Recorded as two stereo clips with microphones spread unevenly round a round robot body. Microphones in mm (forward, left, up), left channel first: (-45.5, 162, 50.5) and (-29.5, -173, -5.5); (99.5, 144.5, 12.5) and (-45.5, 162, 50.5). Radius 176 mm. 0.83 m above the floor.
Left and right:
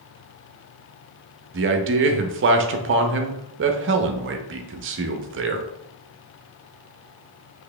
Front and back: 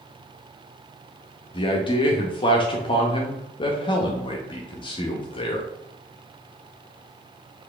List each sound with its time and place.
1.5 s a man speaking: 45° right, 0.6 m